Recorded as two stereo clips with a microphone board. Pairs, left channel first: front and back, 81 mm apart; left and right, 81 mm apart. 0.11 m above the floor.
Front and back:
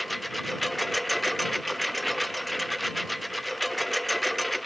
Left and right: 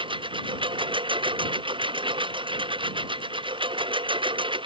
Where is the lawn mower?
90° right.